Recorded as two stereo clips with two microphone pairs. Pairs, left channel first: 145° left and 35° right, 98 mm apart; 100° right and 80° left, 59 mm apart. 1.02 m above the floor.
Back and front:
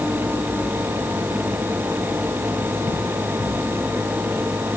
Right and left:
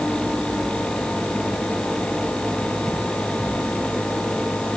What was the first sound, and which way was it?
Only background noise.